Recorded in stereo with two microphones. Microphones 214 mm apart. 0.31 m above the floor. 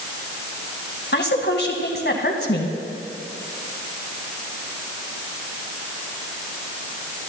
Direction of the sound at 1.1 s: 55° left (ahead or behind).